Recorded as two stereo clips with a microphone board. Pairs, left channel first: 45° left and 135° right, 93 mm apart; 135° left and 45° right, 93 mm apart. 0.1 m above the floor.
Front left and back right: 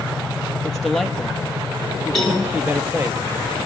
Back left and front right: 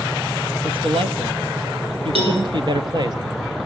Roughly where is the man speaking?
Ahead right.